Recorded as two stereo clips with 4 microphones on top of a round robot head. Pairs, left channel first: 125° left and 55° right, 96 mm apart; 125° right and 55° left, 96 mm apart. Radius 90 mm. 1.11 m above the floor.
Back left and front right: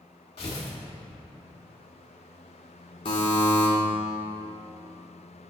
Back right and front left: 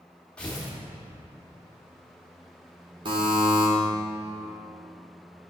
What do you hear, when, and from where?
0.4 s tearing paper: 155° left, 0.9 m
3.0 s a buzzer: 95° left, 1.2 m